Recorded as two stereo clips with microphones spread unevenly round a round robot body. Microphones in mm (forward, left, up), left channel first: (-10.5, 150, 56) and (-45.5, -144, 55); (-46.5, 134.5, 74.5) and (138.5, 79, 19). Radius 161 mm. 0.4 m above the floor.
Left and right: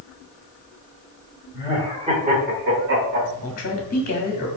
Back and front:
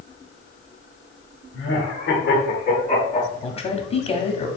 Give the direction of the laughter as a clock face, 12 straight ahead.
6 o'clock.